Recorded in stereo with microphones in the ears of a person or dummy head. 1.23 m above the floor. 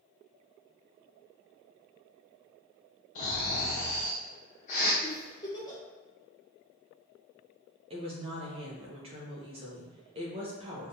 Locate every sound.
3.1 s snoring: 40° left (ahead or behind), 1.1 m
5.0 s a giggle: 20° left (ahead or behind), 1.1 m
7.9 s a woman speaking: 30° right (ahead or behind), 1.1 m